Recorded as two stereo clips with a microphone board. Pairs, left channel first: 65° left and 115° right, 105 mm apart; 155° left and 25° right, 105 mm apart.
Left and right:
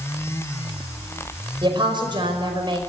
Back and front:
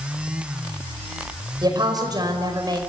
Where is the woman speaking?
70° right, 5 m.